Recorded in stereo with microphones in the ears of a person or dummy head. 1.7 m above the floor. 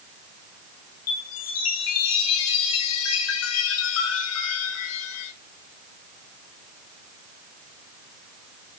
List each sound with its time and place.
1.1 s a chime: 70° left (ahead or behind), 3 m